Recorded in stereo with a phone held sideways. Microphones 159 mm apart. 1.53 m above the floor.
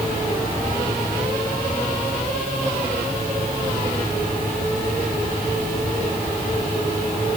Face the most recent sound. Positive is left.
No sound to turn to.